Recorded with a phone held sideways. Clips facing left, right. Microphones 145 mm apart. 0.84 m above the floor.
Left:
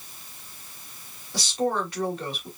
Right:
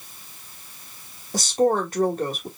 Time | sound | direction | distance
1.3 | a woman speaking | 45° right (ahead or behind) | 1.7 m